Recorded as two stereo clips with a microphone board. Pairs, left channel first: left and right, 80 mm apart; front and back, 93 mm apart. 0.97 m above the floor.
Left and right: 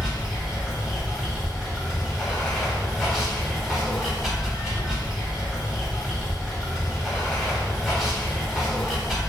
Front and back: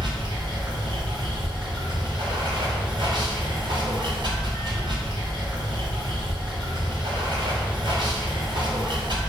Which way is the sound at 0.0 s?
170° right.